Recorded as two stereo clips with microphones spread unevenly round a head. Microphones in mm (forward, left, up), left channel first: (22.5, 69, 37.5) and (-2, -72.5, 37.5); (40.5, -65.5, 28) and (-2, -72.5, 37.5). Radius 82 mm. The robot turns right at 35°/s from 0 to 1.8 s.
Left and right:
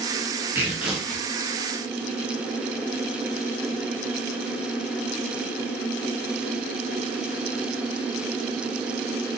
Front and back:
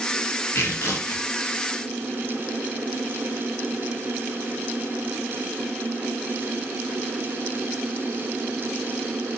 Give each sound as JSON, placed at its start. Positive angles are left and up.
{"t": 0.6, "sound": "tearing paper", "azimuth_deg": -25, "distance_m": 0.6}